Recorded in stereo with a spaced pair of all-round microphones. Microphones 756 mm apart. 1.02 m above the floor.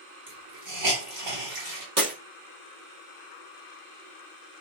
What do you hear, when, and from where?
0.3 s a hiss: 45° right (ahead or behind), 3.5 m
2.0 s breaking glass: 45° right (ahead or behind), 5.5 m